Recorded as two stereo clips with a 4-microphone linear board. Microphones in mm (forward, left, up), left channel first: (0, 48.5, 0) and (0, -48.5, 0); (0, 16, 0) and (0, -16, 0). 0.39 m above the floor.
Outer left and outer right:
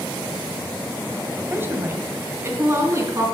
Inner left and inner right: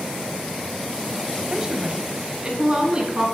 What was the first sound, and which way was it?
A woman speaking, 20° right (ahead or behind).